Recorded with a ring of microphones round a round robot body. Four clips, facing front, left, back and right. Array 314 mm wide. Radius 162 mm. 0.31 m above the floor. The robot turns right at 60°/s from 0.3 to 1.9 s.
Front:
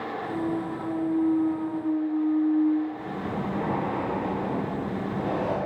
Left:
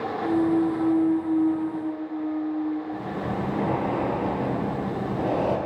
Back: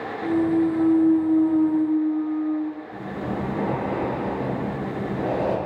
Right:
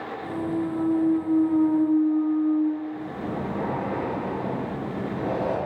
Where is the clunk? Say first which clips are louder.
Left 6 dB, back 10 dB; 155° left, 2.5 m; by 2.8 s 110° right, 2.5 m.